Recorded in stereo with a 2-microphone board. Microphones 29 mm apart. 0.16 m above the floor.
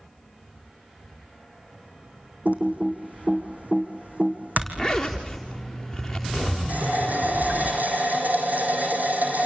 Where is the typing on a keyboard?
65° right (ahead or behind), 3.5 m.